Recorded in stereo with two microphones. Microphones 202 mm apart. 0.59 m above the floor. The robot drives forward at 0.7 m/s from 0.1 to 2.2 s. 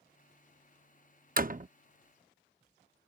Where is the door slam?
45° right (ahead or behind); by 1.7 s 40° right (ahead or behind).